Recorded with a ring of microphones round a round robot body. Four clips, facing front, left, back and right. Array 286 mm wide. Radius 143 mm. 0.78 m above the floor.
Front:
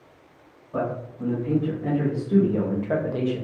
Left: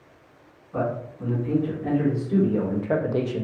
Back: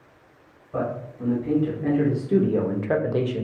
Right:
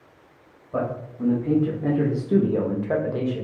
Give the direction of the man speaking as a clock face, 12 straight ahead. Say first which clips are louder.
Even, even; 3 o'clock.